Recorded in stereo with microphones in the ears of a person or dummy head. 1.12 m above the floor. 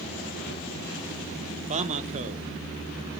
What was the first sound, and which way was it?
A man speaking, 35° right (ahead or behind).